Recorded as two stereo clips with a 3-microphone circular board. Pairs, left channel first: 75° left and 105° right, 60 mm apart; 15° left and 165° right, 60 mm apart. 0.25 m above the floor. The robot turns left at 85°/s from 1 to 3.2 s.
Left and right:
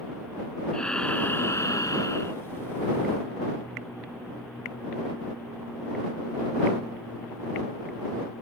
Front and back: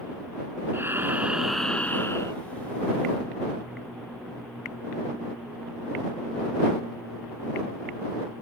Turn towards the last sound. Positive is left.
turn(degrees=-40)